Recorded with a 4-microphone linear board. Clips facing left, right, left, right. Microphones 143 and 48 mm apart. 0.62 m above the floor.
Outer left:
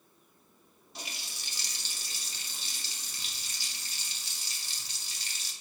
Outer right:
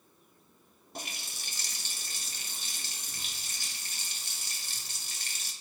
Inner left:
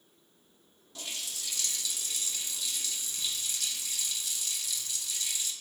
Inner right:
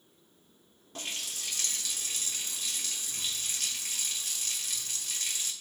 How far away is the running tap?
About 0.9 m.